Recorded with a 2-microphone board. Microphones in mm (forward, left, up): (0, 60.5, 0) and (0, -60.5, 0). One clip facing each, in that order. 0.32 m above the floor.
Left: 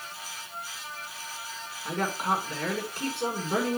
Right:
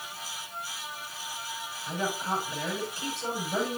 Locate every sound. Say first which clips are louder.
1.9 s a woman speaking: left 3 dB; 60° left (ahead or behind), 4 m